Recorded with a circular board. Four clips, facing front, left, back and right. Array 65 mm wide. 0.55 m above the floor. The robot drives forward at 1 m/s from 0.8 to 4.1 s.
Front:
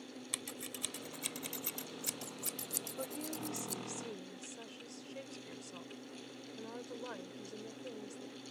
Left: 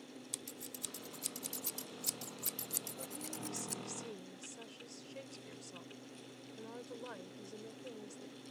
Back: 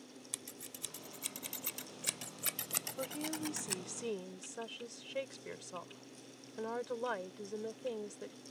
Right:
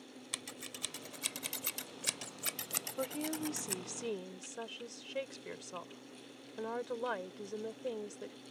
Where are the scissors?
60° right; by 3.8 s 150° right.